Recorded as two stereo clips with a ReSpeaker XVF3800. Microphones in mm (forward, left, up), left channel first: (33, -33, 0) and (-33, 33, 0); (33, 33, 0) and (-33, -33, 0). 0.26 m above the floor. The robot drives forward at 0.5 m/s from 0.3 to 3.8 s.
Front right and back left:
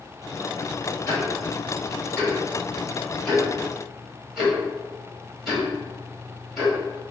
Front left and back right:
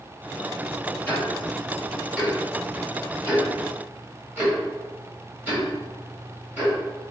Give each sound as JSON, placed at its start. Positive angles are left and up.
{"t": 1.1, "sound": "ticking", "azimuth_deg": -15, "distance_m": 1.6}